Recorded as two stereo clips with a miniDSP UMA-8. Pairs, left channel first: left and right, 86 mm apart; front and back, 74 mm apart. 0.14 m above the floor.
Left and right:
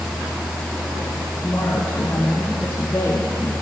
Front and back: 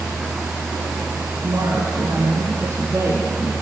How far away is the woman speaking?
About 1.6 m.